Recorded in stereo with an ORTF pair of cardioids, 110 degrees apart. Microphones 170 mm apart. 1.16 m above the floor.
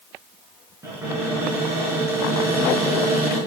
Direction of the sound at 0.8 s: 15° right.